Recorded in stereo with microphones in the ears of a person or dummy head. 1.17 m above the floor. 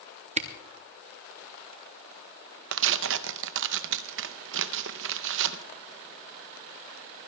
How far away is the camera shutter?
About 0.6 m.